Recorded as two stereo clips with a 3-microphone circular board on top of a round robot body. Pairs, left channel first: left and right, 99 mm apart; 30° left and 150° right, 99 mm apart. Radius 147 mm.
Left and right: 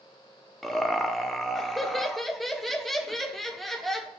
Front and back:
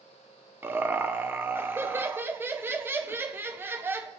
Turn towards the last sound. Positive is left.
turn(degrees=175)